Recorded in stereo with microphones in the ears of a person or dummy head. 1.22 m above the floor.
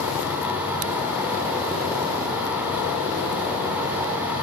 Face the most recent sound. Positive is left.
turn(degrees=-20)  # may be behind; listen again after turning